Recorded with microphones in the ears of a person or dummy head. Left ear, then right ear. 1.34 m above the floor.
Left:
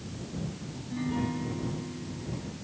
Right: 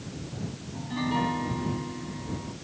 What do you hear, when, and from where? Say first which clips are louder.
0.7 s a piano: right 6 dB; 40° right (ahead or behind)